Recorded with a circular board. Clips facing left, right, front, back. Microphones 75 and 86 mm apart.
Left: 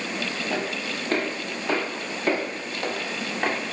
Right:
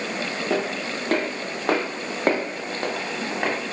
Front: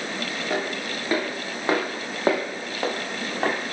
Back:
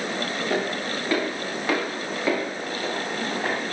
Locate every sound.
0.5 s footsteps: 80° right, 3.5 m; by 3.6 s 10° right, 2.5 m